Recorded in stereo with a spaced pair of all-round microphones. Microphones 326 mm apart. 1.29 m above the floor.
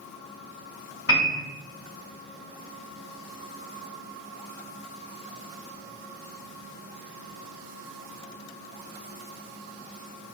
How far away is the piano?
About 1.4 m.